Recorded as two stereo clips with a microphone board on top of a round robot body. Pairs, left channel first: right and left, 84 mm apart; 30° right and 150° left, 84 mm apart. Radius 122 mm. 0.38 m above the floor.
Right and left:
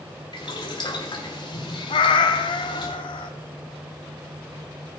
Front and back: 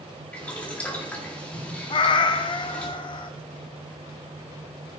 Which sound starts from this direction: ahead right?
A cat meowing, at 1.9 s.